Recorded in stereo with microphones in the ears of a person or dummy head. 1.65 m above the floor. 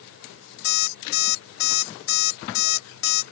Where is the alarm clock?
60° left (ahead or behind).